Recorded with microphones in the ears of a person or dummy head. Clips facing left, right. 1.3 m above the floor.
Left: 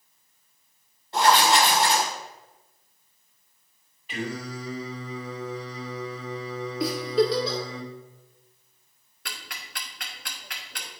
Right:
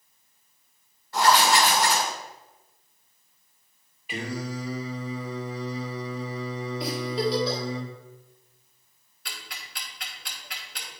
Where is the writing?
25° left (ahead or behind), 1.6 m.